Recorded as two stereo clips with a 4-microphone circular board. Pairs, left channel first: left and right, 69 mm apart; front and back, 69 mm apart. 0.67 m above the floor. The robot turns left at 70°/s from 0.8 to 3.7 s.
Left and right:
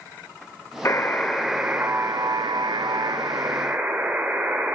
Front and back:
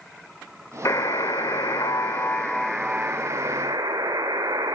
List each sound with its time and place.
0.8 s a buzzer: 40° left, 1.4 m; by 4.8 s 160° right, 1.4 m